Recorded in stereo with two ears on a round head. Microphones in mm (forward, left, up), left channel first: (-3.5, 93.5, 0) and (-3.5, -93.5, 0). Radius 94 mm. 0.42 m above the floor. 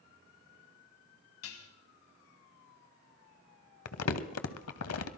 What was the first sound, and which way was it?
Dishes clattering, 70° left (ahead or behind).